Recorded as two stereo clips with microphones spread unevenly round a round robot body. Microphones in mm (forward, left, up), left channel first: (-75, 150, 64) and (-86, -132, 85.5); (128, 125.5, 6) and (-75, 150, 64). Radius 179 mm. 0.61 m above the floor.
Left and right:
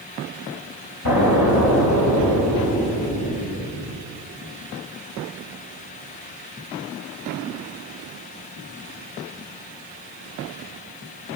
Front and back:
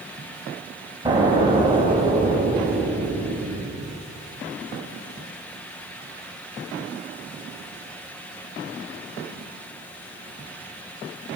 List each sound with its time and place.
1.1 s an explosion: 100° left, 5 m